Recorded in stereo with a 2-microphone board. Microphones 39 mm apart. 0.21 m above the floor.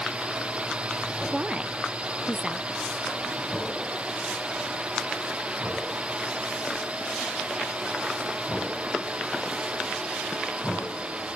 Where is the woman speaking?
25° right (ahead or behind).